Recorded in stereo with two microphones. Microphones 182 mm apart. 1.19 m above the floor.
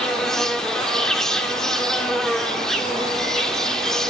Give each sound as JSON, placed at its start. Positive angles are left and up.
{"t": 0.0, "sound": "an insect", "side_deg": 5, "distance_m": 1.6}